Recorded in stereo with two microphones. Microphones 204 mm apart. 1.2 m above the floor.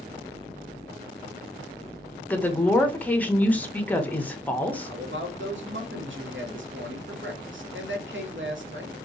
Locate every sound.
2.3 s a woman speaking: 10° left (ahead or behind), 0.6 m
4.8 s a man speaking: 70° right (ahead or behind), 1.0 m